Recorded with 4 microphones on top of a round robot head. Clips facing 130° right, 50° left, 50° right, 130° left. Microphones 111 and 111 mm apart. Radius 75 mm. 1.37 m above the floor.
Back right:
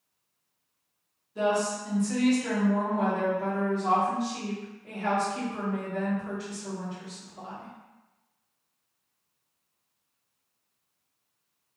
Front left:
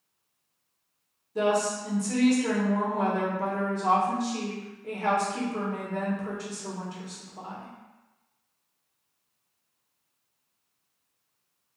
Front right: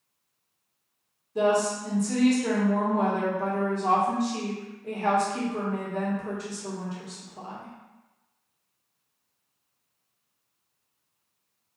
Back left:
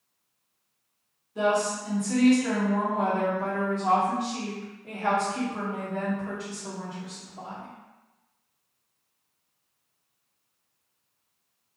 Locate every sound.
1.4 s a woman speaking: straight ahead, 1.2 m